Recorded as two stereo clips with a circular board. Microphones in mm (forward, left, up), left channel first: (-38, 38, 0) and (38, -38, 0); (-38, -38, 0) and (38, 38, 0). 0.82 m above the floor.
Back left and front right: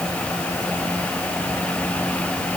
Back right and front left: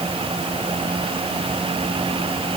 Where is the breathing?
No breathing in this recording.